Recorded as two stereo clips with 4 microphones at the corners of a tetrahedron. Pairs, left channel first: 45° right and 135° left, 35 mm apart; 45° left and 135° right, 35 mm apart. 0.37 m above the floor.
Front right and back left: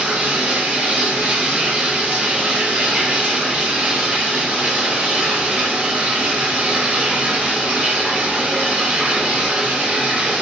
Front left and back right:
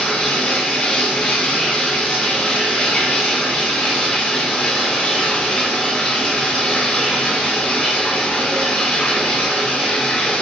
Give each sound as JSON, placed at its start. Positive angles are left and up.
{"t": 0.0, "sound": "running water", "azimuth_deg": 90, "distance_m": 0.9}